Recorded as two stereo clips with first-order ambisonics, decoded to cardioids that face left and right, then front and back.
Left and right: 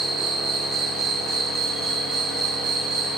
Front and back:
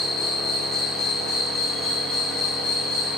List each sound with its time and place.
0.0 s an insect: 30° right, 3.5 m